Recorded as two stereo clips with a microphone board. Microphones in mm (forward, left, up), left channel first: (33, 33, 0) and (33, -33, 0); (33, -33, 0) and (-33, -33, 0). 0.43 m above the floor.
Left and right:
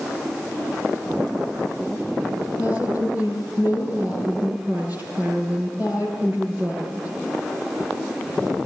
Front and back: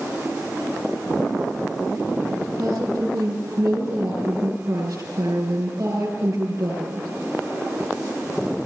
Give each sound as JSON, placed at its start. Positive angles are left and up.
{"t": 2.6, "sound": "a woman speaking", "azimuth_deg": -145, "distance_m": 8.0}